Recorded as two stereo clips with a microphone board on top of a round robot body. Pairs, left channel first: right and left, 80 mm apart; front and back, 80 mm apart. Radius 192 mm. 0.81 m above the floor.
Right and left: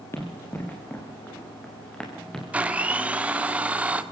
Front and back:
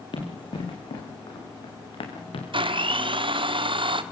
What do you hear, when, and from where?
0.1 s running footsteps: 30° right, 5 m; by 2.4 s 10° right, 6 m
2.5 s a blender: 165° left, 1.8 m